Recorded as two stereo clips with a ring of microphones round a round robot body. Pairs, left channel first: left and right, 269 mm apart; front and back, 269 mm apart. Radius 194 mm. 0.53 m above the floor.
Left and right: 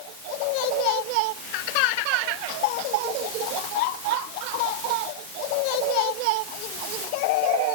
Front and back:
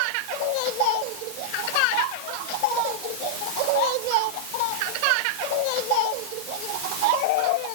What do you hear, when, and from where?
Only background noise.